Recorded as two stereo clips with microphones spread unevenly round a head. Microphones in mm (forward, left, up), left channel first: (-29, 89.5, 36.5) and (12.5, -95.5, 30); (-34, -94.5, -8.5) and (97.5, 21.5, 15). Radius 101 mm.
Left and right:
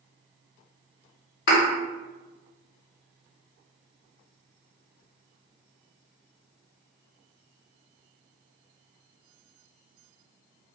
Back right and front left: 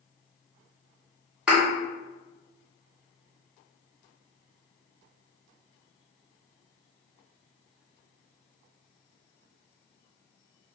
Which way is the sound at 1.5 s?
120° left.